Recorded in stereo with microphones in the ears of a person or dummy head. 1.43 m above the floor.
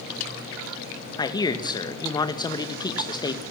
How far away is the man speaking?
About 2.0 m.